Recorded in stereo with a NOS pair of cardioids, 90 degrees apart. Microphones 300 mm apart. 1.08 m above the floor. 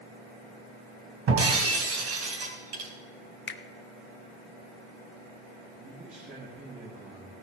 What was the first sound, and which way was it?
Breaking glass, 55° right.